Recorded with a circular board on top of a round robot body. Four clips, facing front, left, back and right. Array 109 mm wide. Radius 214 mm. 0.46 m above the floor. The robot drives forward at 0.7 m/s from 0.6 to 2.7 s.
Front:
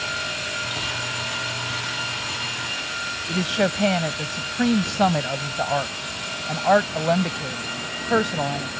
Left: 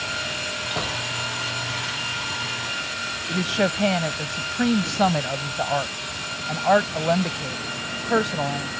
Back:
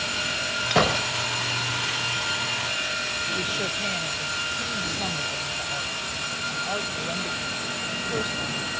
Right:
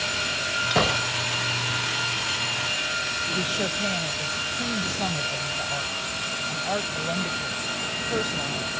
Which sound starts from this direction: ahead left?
A woman speaking, at 3.3 s.